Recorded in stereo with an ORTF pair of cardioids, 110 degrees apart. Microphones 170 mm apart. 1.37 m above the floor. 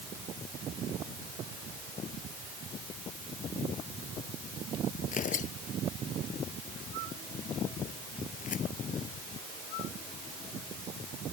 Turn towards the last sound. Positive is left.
turn(degrees=45)